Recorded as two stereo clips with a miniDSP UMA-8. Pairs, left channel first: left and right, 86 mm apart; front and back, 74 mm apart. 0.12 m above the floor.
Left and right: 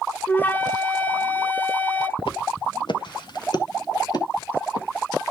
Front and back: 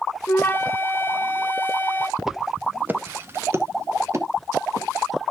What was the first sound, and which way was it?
A flute, 40° left.